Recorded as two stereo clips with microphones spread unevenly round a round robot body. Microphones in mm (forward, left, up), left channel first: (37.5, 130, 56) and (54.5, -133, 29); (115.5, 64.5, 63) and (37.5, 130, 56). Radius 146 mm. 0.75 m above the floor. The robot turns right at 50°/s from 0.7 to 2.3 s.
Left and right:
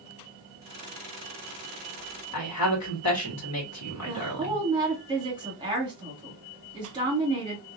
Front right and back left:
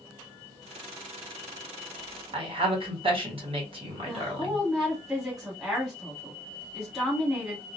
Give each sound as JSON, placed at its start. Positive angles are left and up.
{"t": 2.3, "sound": "a woman speaking", "azimuth_deg": 120, "distance_m": 1.6}
{"t": 4.0, "sound": "a woman speaking", "azimuth_deg": -140, "distance_m": 1.2}